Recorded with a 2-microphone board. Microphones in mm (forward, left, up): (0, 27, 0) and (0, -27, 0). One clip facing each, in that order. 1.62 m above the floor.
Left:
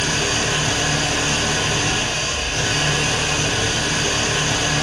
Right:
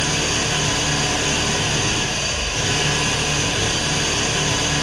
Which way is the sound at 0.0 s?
60° left (ahead or behind).